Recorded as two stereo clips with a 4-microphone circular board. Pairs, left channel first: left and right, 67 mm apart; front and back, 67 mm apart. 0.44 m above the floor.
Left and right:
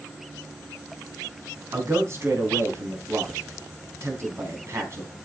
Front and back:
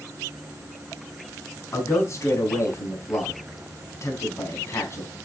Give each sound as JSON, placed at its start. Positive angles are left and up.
{"t": 1.7, "sound": "a man speaking", "azimuth_deg": -40, "distance_m": 4.0}